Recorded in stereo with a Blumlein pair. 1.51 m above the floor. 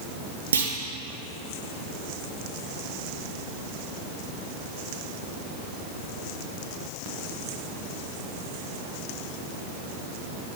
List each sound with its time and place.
0.5 s a clunk: 65° right, 1.2 m